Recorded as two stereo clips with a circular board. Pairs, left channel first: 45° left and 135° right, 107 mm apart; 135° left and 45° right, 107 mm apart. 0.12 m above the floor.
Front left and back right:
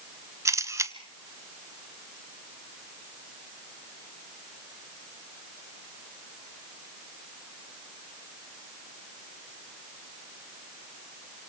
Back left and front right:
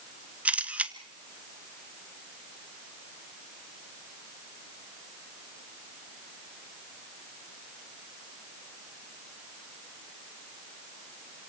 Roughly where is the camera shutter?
Right.